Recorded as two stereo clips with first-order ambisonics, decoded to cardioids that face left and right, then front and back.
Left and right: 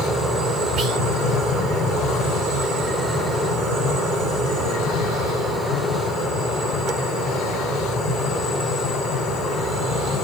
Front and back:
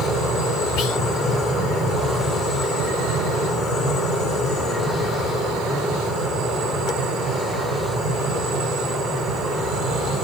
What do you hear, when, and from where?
0.8 s whispering: 25° right, 1.0 m